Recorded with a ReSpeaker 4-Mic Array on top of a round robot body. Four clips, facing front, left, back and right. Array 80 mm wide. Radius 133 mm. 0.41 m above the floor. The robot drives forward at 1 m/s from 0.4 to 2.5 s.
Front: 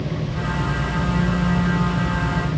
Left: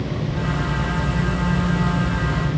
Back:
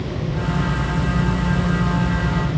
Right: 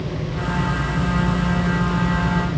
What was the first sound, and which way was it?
Only background noise.